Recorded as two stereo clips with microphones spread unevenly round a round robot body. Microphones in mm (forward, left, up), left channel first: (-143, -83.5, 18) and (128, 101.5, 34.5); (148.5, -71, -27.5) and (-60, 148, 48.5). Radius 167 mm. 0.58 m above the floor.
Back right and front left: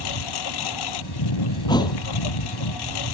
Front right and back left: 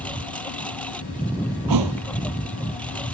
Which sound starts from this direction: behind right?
A lawn mower, at 0.0 s.